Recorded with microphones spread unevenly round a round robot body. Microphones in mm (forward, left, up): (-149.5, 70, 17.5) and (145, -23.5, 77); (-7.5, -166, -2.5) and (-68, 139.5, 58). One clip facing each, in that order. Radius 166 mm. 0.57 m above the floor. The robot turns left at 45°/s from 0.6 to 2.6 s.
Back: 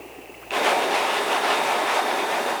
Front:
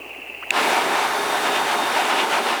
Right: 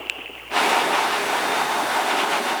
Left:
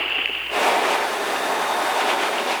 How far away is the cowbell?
No cowbell in this recording.